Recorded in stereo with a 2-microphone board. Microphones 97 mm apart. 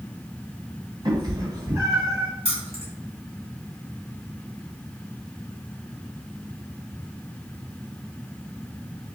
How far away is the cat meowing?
About 1.9 m.